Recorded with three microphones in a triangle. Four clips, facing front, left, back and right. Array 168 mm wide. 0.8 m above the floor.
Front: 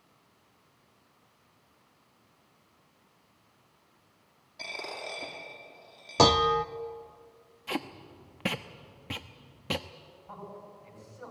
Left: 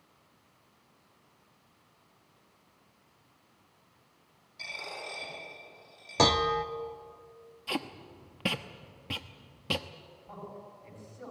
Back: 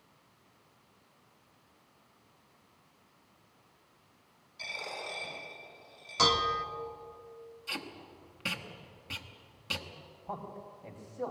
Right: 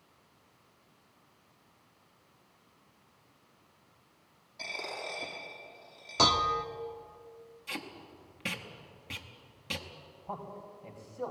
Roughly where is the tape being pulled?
Ahead left.